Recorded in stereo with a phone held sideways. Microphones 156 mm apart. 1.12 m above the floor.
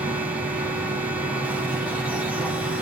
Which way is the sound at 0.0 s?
10° right (ahead or behind).